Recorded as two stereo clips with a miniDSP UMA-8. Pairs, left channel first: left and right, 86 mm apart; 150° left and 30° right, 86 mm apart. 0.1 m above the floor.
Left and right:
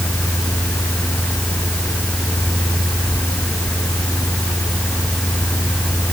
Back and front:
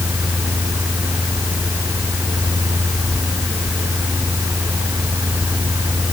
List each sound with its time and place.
Only background noise.